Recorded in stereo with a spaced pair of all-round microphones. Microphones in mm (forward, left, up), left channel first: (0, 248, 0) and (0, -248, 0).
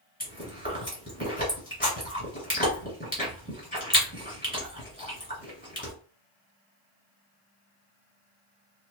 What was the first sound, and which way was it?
Chewing, 15° left (ahead or behind).